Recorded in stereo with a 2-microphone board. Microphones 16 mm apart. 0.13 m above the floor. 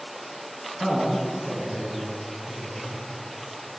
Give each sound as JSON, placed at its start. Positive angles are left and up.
{"t": 0.8, "sound": "a man speaking", "side_deg": -35, "distance_m": 1.6}